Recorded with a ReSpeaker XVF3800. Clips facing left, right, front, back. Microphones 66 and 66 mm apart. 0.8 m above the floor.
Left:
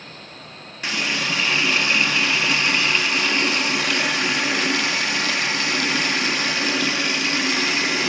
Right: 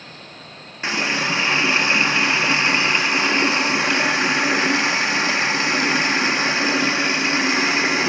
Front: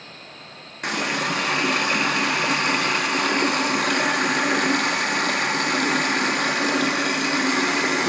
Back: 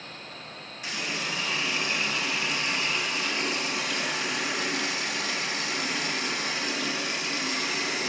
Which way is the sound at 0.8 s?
25° right.